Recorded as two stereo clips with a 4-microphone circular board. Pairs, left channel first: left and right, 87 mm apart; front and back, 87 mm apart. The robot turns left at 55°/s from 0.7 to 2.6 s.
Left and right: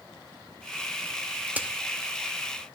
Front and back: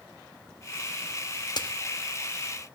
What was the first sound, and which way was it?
A crack, 20° right.